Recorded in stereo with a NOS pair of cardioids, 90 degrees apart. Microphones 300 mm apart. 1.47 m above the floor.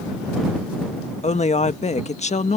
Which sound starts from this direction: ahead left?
A woman speaking, at 1.2 s.